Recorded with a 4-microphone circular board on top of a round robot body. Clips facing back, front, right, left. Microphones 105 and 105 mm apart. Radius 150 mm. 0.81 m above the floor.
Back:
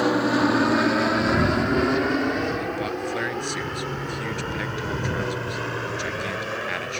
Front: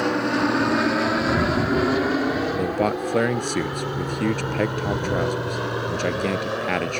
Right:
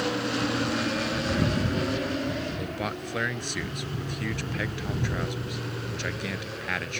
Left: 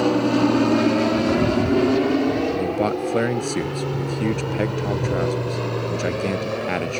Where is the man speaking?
45° left.